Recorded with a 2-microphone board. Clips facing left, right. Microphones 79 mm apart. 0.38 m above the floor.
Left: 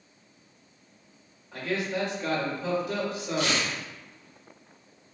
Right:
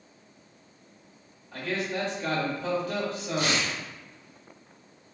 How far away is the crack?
I don't hear a crack.